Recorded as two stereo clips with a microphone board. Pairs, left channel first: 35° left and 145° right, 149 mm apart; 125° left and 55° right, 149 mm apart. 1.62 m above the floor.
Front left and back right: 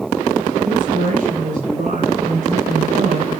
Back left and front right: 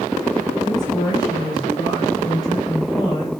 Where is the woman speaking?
170° right, 9.5 m; by 3.4 s 175° right, 5.5 m.